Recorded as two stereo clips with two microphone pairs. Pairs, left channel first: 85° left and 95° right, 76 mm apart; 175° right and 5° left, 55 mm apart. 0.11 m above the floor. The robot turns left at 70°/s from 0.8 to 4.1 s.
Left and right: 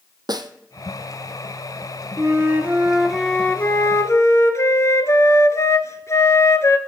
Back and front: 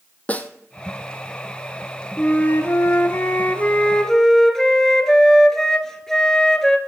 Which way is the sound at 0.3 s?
115° right.